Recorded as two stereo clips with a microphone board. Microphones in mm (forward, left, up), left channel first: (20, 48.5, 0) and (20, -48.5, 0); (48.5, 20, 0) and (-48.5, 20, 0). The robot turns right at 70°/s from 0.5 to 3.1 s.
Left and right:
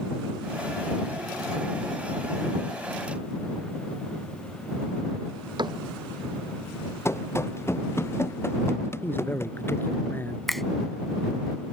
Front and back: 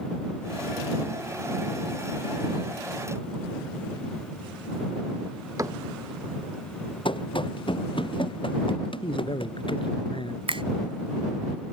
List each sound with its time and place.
5.6 s a cupboard door: 125° right
7.0 s running footsteps: 30° left; by 9.9 s 25° left
9.0 s a man speaking: 25° left
10.5 s a finger snap: straight behind